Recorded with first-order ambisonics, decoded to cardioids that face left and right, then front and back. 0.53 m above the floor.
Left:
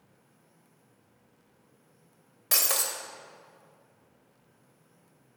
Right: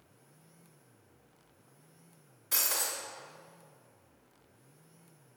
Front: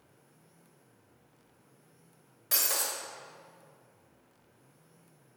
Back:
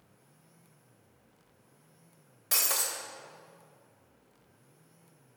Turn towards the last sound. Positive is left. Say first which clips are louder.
# left 4 dB, back 1 dB
turn(degrees=95)